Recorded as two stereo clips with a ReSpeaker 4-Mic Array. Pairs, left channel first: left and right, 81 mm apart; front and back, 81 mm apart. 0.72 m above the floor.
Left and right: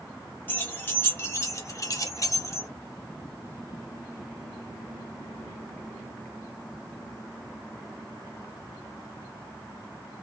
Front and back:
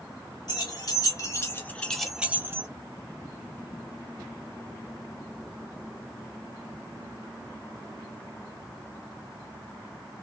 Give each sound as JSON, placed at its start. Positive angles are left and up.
{"t": 0.5, "sound": "keys jangling", "azimuth_deg": 25, "distance_m": 1.4}